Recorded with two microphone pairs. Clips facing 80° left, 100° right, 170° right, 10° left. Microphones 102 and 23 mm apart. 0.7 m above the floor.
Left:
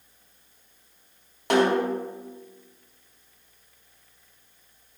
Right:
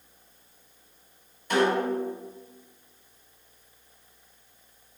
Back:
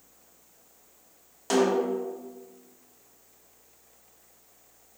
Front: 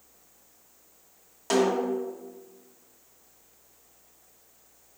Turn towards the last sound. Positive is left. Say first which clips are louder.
# left 3 dB, even
turn(degrees=90)